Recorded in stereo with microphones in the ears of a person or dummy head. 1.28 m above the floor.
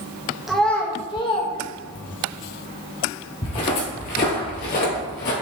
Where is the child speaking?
Centre (ahead or behind), 0.9 m; by 2.3 s 50° left (ahead or behind), 1.4 m.